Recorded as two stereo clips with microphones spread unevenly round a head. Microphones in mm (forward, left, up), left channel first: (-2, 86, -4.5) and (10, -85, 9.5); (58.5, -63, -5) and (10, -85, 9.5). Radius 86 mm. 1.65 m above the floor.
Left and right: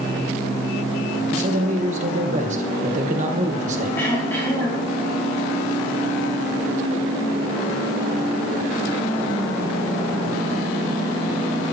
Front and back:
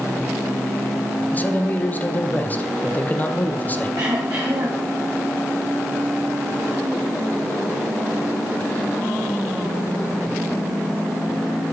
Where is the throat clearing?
175° left, 4 m.